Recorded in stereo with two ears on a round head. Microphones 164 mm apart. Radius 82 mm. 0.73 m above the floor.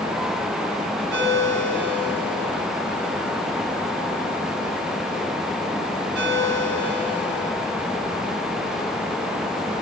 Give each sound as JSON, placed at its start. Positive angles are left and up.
{"t": 1.1, "sound": "a ringtone", "side_deg": -70, "distance_m": 3.5}